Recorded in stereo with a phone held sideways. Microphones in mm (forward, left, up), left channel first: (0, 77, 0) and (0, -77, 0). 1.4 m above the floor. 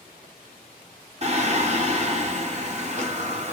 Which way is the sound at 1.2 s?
45° right (ahead or behind).